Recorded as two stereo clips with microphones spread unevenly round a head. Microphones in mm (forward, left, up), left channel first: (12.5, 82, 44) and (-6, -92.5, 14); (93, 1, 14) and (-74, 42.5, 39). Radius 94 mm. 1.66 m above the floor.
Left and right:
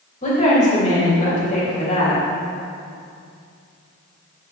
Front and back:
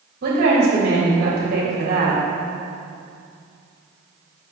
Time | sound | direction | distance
0.2 | a woman speaking | 135° left | 3.5 m